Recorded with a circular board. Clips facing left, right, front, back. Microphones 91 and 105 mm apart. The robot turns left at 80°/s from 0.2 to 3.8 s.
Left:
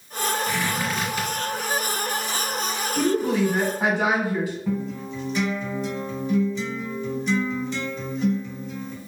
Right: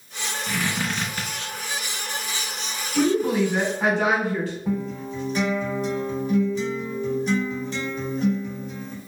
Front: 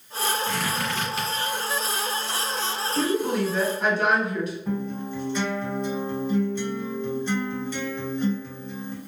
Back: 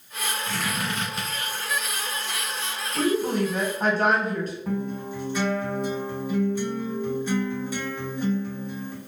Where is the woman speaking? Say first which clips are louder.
Right 2 dB, back 1 dB; 125° right, 1.0 m; by 4.5 s 165° left, 1.0 m.